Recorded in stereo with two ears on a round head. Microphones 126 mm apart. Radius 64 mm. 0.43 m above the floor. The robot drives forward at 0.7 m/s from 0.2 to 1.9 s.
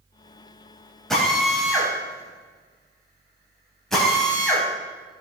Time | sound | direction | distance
1.1 | a drill | 5° left (ahead or behind) | 3 m